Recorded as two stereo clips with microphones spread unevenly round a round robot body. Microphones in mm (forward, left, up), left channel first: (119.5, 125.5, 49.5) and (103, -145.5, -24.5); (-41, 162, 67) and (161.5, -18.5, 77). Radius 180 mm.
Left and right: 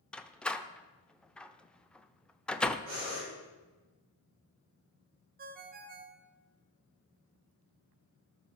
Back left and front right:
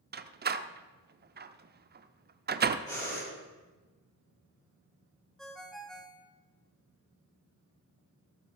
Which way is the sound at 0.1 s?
20° right.